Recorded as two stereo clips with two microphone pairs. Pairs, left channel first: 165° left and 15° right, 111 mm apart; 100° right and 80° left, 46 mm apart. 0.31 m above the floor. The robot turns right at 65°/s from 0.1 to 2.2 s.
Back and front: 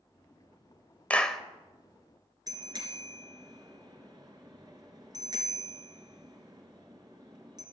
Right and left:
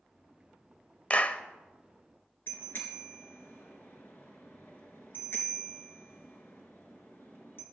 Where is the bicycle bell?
65° right, 3 m.